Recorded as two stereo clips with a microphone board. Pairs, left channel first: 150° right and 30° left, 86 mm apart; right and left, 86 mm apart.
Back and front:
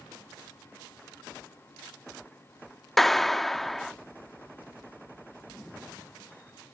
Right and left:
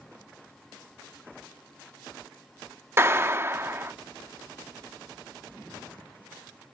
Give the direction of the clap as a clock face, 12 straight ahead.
8 o'clock.